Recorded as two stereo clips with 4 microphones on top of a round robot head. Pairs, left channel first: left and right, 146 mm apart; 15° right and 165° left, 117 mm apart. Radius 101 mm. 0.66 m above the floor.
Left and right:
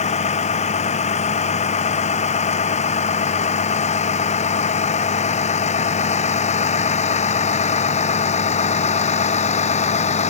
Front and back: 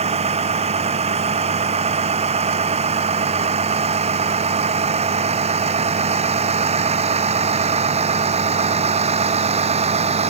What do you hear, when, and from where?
0.0 s a vehicle: 135° left